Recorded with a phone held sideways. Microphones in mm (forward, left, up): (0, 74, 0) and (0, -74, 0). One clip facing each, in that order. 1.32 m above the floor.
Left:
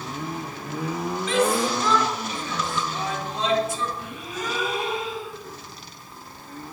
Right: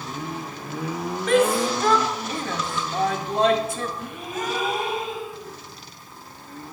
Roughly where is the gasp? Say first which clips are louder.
Right 2 dB; right.